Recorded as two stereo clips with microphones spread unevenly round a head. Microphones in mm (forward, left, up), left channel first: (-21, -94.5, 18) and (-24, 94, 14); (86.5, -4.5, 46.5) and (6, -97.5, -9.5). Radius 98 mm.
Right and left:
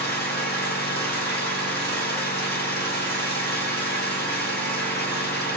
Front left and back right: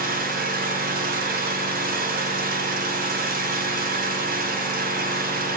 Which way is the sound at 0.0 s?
130° right.